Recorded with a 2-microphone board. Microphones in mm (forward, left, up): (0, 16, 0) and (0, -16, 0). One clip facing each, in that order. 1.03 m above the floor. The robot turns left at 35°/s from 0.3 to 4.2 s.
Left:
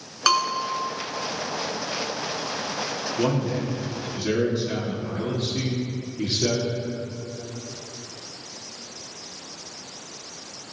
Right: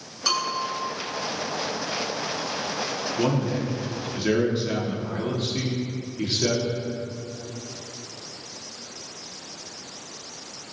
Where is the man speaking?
Straight ahead, 2 m; by 6.7 s 35° right, 2 m.